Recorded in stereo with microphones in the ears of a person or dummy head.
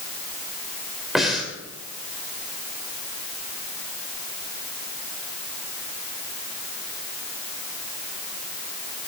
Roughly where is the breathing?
Centre.